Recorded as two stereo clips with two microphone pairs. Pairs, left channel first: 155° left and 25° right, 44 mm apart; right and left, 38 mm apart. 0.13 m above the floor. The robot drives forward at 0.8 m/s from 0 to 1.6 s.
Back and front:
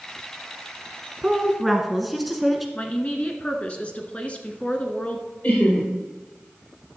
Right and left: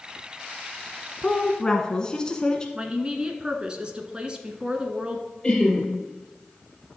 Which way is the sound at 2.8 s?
130° left.